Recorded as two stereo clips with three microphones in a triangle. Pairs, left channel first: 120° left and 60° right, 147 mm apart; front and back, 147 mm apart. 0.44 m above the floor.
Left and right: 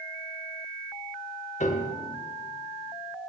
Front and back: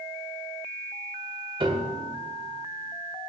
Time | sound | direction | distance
1.6 | a piano | 135° left | 0.7 m